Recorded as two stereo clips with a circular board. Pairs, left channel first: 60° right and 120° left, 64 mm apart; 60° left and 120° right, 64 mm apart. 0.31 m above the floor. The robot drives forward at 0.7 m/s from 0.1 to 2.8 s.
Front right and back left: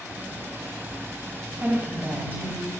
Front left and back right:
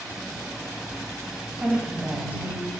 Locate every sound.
1.6 s a woman speaking: straight behind, 1.6 m